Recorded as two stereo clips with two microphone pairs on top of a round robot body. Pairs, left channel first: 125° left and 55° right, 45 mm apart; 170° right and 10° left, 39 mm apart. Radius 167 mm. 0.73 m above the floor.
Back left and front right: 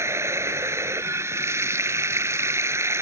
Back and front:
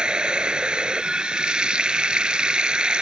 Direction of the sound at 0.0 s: 60° right.